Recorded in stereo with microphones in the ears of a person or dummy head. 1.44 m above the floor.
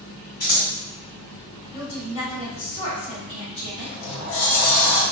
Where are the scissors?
45° left (ahead or behind), 1.6 m.